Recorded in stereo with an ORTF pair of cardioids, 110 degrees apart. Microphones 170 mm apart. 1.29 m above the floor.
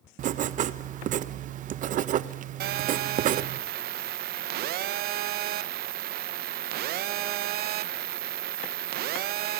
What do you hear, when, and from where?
0.2 s writing: 55° right, 0.7 m
2.6 s a phone buzzing: 65° right, 0.8 m